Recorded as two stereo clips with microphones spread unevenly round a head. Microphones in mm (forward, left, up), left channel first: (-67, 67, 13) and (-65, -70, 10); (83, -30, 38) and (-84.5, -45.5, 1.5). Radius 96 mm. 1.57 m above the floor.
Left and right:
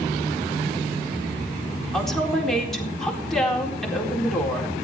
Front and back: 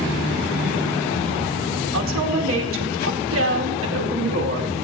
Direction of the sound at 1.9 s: Straight behind.